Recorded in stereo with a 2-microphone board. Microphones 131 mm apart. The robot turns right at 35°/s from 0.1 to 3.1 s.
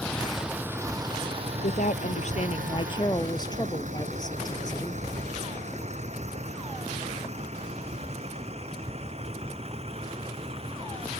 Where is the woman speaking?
100° left; by 5.0 s 150° left.